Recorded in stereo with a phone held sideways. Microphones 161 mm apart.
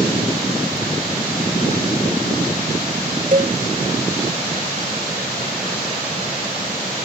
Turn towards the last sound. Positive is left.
turn(degrees=-60)  # may be behind; listen again after turning